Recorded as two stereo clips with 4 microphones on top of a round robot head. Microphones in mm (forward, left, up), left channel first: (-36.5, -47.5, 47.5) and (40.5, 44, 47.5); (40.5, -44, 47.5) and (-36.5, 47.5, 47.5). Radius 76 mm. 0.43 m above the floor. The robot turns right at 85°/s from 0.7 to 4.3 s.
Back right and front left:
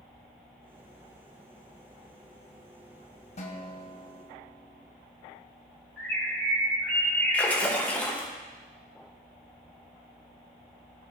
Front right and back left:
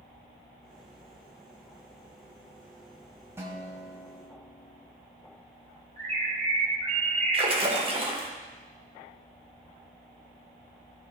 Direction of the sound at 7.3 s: 155° left.